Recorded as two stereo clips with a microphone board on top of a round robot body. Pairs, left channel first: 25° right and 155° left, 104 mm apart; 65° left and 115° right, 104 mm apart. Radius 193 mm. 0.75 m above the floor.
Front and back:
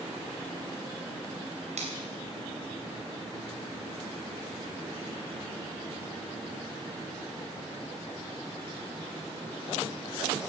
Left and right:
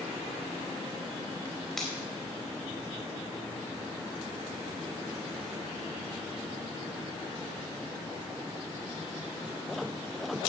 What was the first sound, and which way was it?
A finger snap, 155° left.